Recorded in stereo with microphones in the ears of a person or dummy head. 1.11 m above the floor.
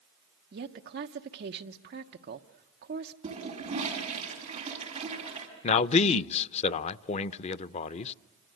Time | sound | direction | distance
0.5 | a woman speaking | 50° right (ahead or behind) | 1.1 m
3.2 | a toilet flushing | 35° right (ahead or behind) | 5.5 m
5.6 | a man speaking | 40° left (ahead or behind) | 0.6 m